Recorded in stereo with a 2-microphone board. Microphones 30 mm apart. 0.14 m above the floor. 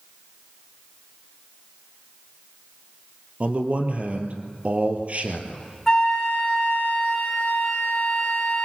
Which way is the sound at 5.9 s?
20° left (ahead or behind).